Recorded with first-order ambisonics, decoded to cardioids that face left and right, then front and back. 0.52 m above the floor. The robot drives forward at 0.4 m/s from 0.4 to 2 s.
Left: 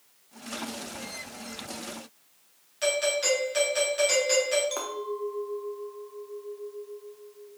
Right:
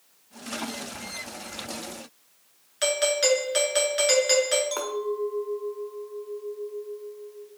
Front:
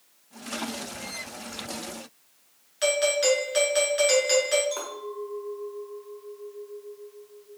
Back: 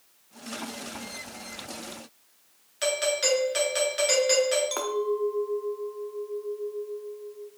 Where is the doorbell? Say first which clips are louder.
Right 2 dB, front 3 dB; 105° right, 1.1 m.